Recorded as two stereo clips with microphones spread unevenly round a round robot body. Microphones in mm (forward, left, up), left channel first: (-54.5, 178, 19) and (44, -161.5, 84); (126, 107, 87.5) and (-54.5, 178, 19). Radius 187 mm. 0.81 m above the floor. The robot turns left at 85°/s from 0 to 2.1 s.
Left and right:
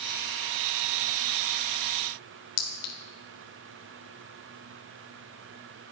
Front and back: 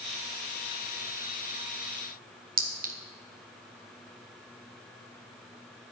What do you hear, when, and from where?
2.6 s a clink: 110° left, 1.8 m